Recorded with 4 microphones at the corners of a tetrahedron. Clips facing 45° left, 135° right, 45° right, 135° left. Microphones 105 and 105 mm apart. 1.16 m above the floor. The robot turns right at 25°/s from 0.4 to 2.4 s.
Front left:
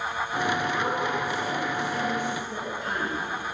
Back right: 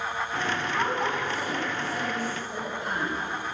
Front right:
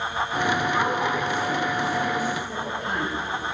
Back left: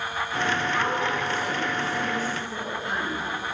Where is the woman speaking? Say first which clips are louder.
Even, front right 2 dB; 120° right, 8.5 m; by 3.1 s 80° right, 8.5 m.